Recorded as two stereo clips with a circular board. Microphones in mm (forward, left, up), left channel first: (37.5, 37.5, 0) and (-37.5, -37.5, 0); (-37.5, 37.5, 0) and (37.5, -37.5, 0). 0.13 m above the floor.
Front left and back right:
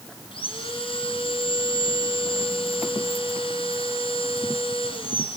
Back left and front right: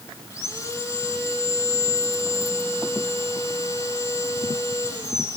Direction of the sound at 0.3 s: 80° left.